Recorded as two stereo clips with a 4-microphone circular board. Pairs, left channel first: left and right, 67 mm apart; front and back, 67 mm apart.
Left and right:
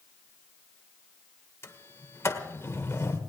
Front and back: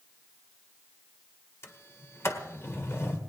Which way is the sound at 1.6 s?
45° left.